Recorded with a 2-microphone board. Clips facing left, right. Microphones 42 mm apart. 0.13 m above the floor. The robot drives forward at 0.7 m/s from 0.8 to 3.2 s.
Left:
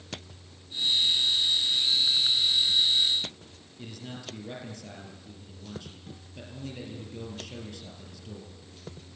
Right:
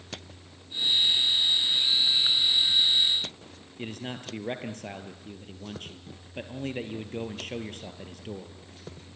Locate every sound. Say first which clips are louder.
3.8 s a man speaking: right 5 dB; 45° right (ahead or behind), 2.5 m